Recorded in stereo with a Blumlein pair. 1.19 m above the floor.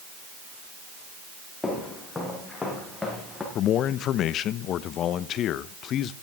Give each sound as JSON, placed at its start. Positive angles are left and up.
{"t": 1.6, "sound": "footsteps", "azimuth_deg": 5, "distance_m": 7.0}
{"t": 3.5, "sound": "a man speaking", "azimuth_deg": 30, "distance_m": 0.8}